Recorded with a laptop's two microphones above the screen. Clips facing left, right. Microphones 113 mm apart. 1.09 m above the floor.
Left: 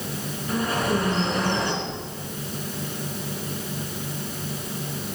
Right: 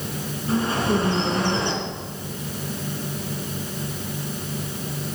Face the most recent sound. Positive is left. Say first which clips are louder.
# right 1 dB
turn(degrees=-75)  # may be behind; listen again after turning